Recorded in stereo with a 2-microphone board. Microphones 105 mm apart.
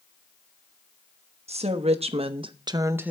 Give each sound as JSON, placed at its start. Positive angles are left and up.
{"t": 1.5, "sound": "a woman speaking", "side_deg": -80, "distance_m": 1.2}